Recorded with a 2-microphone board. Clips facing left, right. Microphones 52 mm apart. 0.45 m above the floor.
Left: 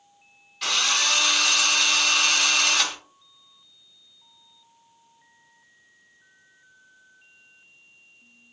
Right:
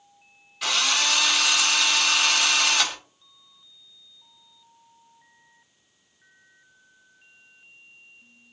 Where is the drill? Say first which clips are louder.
Even; centre (ahead or behind), 1.2 m.